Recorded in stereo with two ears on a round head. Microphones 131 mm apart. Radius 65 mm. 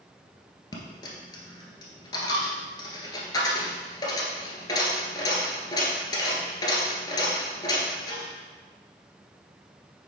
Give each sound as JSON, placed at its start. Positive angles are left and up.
{"t": 0.7, "sound": "a dropped coin", "side_deg": 30, "distance_m": 1.5}